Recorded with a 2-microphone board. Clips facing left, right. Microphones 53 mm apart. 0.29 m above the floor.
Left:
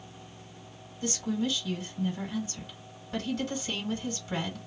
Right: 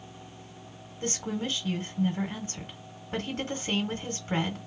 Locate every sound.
1.0 s a woman speaking: 45° right (ahead or behind), 1.8 m